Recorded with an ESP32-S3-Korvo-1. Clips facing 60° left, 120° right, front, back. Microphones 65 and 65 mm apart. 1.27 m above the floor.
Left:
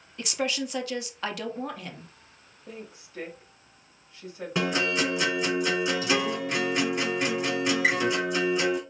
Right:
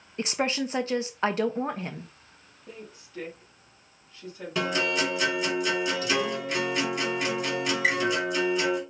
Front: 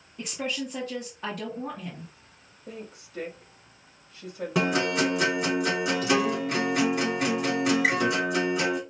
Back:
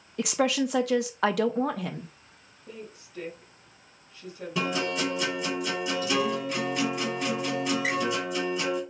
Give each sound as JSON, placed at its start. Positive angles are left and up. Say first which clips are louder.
{"t": 0.2, "sound": "a woman speaking", "louder": "right 2 dB, back 7 dB", "azimuth_deg": 180, "distance_m": 0.7}
{"t": 2.7, "sound": "a woman speaking", "louder": "left 2 dB, front 2 dB", "azimuth_deg": -15, "distance_m": 2.0}
{"t": 4.5, "sound": "a guitar", "louder": "even, front 4 dB", "azimuth_deg": -10, "distance_m": 2.5}